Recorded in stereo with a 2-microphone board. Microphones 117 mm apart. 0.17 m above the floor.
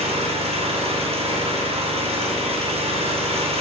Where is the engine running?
60° right (ahead or behind), 3.5 m.